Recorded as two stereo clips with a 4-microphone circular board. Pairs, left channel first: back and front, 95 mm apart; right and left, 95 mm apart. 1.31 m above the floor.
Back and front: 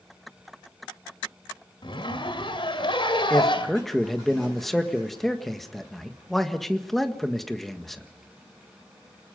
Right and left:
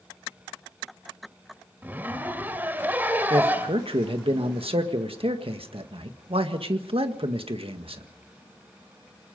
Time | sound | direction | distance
1.8 | a zipper | 160° left | 2.5 m
3.3 | a man speaking | 90° left | 1.7 m